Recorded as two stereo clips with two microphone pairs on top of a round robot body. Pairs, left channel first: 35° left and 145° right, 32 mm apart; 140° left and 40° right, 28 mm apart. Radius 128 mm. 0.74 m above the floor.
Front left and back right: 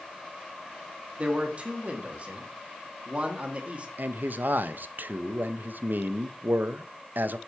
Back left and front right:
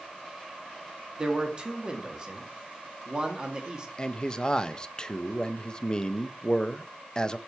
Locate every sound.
1.2 s a man speaking: 90° right, 1.5 m
4.0 s a man speaking: 150° right, 0.5 m